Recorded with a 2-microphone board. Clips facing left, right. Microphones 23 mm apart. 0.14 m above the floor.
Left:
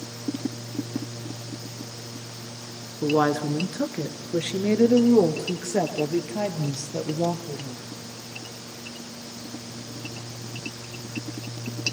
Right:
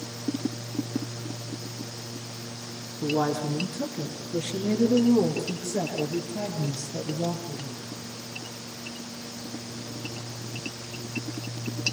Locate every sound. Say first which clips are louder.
3.0 s a woman speaking: left 4 dB; 40° left (ahead or behind), 1.8 m; by 7.8 s 50° left (ahead or behind), 4 m